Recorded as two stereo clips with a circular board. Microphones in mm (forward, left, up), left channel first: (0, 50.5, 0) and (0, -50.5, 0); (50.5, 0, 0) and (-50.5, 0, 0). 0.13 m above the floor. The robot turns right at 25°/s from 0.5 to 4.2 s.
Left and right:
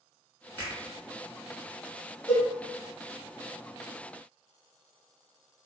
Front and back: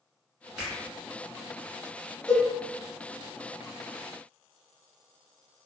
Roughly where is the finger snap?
Left.